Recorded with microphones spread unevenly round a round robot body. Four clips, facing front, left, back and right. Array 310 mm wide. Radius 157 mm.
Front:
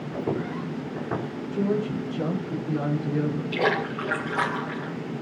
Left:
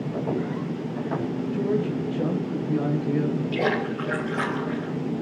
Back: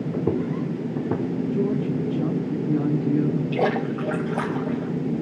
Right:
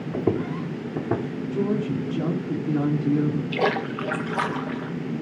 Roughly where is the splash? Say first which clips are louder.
Even, back 2 dB; behind.